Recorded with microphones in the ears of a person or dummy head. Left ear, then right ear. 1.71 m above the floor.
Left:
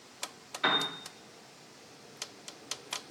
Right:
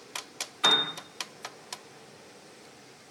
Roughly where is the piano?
Centre.